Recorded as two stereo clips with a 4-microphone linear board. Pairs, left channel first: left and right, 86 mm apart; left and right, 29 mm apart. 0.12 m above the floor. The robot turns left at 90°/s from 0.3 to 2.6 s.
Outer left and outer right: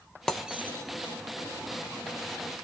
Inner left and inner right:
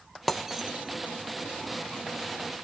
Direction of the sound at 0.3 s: 5° left (ahead or behind).